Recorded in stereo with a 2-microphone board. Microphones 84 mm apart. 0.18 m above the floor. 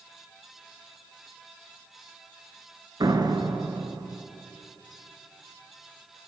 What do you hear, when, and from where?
3.0 s a door slam: 55° right (ahead or behind), 2 m